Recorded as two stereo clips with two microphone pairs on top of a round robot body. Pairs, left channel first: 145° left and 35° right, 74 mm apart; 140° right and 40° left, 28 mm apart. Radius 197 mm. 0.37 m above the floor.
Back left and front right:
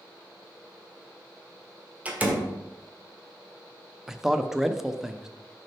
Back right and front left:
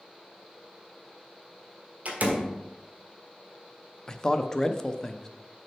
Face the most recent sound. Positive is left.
turn(degrees=-100)